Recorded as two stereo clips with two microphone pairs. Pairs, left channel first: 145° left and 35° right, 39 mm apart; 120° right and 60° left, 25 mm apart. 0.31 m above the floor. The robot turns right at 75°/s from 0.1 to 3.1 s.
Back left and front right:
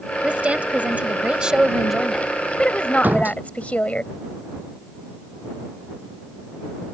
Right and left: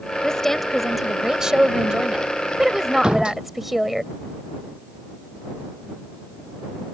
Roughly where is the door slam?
Ahead.